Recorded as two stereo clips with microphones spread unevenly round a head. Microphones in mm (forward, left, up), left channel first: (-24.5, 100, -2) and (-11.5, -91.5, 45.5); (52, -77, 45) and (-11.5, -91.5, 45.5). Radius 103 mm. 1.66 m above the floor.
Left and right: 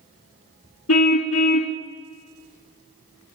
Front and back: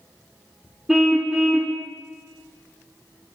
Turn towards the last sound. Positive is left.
turn(degrees=105)